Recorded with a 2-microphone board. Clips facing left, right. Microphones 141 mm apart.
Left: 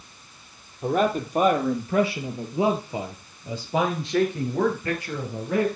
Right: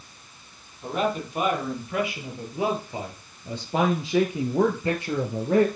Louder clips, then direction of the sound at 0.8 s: Left 4 dB; 50° left (ahead or behind).